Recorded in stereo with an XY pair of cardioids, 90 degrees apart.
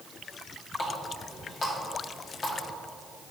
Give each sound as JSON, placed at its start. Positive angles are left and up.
{"t": 0.8, "sound": "a running tap", "azimuth_deg": 45, "distance_m": 2.0}